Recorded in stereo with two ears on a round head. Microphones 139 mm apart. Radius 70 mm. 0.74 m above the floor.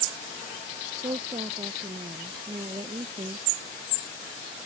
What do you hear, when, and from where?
1.0 s a woman speaking: 25° right (ahead or behind)